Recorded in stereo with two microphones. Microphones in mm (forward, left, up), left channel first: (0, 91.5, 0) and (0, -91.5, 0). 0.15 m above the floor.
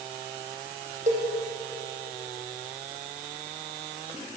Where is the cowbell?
45° right (ahead or behind), 5.5 m.